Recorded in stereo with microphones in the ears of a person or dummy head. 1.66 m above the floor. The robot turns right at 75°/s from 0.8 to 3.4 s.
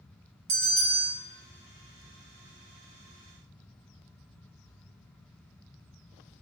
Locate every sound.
0.5 s a bell: 70° right (ahead or behind), 2 m; by 1.1 s 75° right (ahead or behind), 2 m